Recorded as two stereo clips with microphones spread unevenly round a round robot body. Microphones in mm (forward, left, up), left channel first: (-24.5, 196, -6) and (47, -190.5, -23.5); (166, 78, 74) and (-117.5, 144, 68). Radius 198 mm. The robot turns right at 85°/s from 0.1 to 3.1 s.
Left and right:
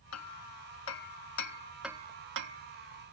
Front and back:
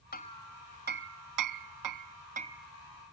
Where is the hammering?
45° left; by 3.1 s 60° right.